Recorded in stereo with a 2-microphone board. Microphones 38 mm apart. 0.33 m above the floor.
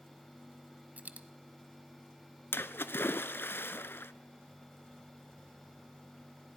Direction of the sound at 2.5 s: 75° left (ahead or behind).